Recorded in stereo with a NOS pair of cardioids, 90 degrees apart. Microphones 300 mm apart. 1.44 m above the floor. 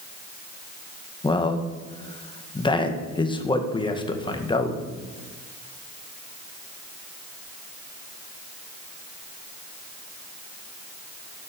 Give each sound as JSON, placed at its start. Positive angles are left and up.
{"t": 1.2, "sound": "a man speaking", "azimuth_deg": 15, "distance_m": 1.7}